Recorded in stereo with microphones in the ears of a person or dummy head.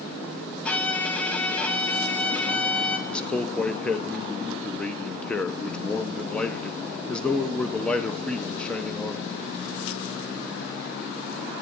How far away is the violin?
About 0.9 m.